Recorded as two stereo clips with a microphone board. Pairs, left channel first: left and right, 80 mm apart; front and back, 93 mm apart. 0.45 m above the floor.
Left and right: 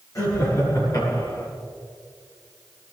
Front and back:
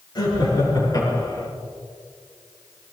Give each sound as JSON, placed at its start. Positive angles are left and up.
{"t": 0.1, "sound": "laughter", "azimuth_deg": 40, "distance_m": 6.5}